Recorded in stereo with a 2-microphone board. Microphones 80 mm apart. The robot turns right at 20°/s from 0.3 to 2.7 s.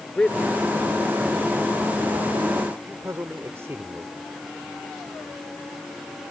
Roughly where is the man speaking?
Centre.